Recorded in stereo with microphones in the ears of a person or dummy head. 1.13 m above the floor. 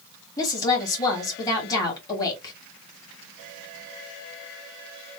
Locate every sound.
0.4 s a woman speaking: 15° left (ahead or behind), 1.7 m